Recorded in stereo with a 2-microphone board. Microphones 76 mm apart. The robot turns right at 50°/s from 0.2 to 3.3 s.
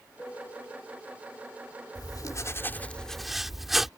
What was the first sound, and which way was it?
A piano, 20° left.